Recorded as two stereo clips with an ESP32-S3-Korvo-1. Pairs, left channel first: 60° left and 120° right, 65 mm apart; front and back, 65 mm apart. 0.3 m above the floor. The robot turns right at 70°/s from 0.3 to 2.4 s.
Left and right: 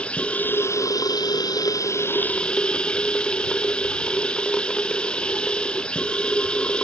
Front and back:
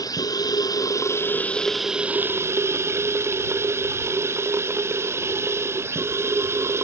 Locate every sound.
0.0 s running water: 10° right; by 6.8 s 135° left